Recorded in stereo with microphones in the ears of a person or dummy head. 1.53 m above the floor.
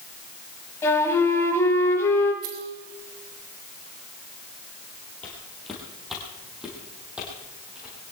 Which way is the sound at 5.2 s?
Centre (ahead or behind).